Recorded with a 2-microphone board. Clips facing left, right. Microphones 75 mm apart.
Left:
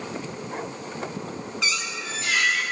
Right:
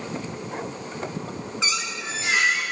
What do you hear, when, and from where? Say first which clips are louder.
1.6 s a squeak: even; 25° right (ahead or behind), 1.8 m